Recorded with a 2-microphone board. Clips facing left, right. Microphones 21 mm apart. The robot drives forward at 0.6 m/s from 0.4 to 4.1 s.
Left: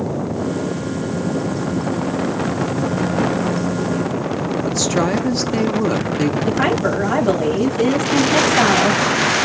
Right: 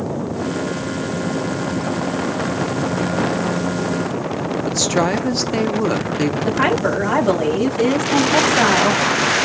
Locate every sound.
4.7 s a woman speaking: 10° right (ahead or behind), 0.9 m
6.5 s a woman speaking: 5° right (ahead or behind), 3.5 m